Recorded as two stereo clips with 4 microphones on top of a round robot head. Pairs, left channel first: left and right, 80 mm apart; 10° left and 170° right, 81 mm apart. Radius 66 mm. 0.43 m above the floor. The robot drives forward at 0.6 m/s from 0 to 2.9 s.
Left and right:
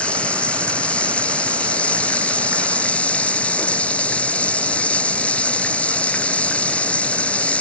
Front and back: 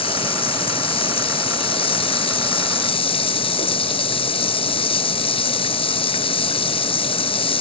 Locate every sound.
0.0 s running water: 15° left